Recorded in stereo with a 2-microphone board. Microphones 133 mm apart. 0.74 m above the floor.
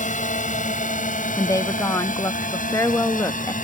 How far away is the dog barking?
I don't hear a dog barking.